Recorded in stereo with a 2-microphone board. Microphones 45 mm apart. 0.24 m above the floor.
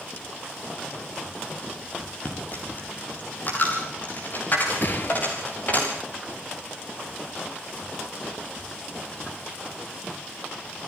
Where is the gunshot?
45° left (ahead or behind), 3 m.